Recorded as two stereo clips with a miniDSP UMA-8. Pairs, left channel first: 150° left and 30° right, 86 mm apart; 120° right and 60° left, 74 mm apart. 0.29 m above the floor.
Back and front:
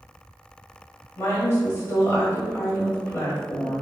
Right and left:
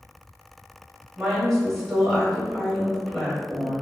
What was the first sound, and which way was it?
A woman speaking, 155° left.